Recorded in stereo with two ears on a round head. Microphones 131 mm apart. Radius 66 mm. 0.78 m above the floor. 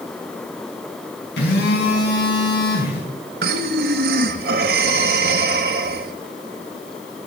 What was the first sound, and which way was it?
A phone buzzing, 75° left (ahead or behind).